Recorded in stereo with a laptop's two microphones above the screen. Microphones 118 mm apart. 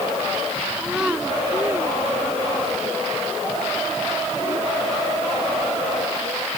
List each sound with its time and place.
0.8 s a child speaking: 5° right (ahead or behind); by 2.9 s 25° right (ahead or behind)